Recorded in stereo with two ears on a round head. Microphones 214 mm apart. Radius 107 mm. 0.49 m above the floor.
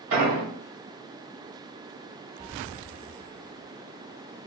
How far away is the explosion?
About 2.5 m.